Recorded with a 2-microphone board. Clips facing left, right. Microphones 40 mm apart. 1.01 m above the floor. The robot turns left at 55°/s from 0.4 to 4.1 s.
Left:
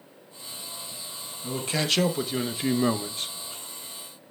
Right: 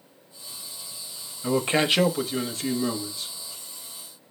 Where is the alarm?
No alarm in this recording.